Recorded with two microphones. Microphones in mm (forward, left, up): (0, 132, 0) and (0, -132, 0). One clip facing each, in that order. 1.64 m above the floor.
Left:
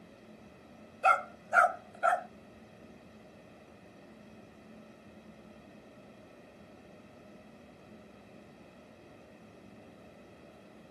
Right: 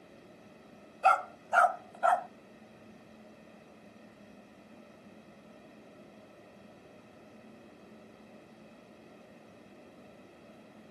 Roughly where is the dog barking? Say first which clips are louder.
Right 2 dB; left.